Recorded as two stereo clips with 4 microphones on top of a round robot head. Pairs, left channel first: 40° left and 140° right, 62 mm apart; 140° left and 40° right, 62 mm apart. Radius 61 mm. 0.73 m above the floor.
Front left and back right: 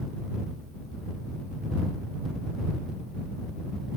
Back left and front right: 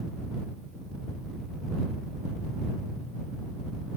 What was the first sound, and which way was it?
Only background noise.